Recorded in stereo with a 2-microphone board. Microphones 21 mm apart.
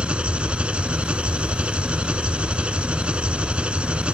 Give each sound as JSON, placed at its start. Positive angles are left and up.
{"t": 0.0, "sound": "an engine running", "side_deg": -75}